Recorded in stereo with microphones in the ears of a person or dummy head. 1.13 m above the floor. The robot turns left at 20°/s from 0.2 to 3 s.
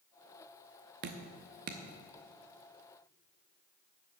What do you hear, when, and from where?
1.0 s dripping: 45° right (ahead or behind), 0.7 m; by 1.8 s 40° right (ahead or behind), 0.7 m